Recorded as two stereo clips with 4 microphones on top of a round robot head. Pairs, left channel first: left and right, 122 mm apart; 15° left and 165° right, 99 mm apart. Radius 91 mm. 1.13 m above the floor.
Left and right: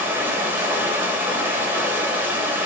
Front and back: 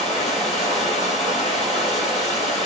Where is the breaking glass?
No breaking glass in this recording.